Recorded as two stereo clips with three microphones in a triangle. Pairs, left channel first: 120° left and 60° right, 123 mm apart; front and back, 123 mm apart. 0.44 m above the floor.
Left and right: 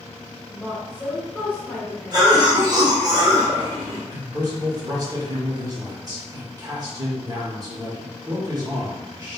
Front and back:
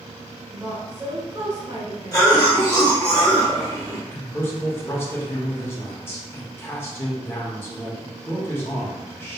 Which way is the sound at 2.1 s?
40° right.